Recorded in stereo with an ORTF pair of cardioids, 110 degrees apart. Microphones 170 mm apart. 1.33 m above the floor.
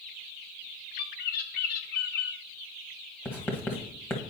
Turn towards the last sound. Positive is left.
turn(degrees=10)